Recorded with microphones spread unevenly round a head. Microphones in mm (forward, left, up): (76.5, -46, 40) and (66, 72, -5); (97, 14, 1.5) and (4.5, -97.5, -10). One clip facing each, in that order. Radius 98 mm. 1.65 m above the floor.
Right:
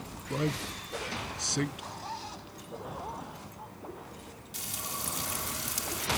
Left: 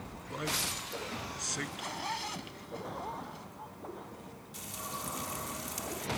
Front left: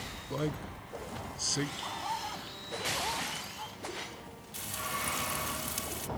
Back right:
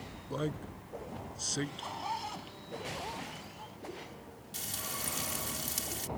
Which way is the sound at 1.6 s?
145° left.